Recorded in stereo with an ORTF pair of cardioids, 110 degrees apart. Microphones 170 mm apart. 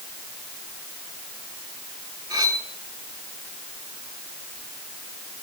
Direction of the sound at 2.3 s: 25° right.